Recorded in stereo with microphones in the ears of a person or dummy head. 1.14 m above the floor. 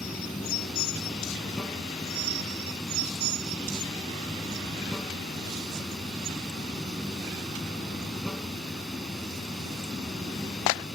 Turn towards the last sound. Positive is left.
turn(degrees=0)  # may be behind; listen again after turning